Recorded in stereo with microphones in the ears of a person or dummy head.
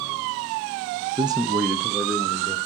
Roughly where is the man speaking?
Right.